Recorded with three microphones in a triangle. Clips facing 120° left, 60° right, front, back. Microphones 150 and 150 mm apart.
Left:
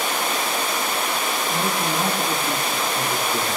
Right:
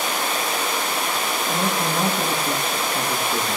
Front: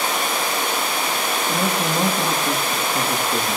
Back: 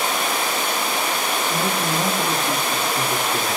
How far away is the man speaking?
About 7.5 m.